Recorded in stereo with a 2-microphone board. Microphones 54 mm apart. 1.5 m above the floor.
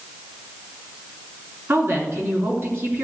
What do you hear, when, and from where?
1.7 s a woman speaking: 40° right (ahead or behind), 3.5 m